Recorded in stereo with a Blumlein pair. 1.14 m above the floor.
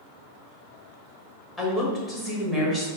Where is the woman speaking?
10° left, 1.5 m.